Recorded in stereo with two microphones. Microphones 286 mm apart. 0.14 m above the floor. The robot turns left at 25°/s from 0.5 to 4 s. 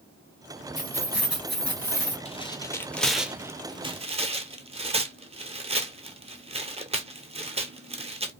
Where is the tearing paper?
20° left (ahead or behind), 0.6 m; by 8.3 s 20° right (ahead or behind), 0.6 m.